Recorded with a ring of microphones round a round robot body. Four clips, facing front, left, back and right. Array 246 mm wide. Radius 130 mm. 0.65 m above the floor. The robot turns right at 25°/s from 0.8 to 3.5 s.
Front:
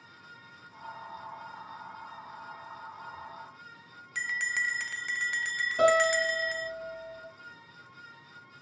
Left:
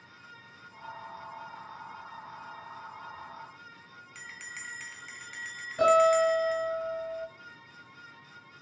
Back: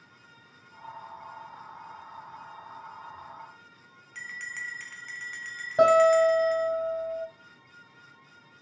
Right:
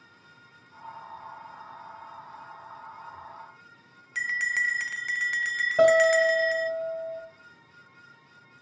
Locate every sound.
4.2 s a bell: 55° right, 0.5 m
5.8 s a guitar: 135° right, 4.5 m